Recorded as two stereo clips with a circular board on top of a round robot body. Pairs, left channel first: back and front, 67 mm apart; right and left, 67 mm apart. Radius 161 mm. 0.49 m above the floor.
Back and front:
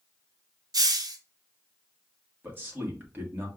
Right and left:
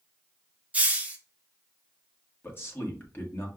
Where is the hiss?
25° left, 0.9 m.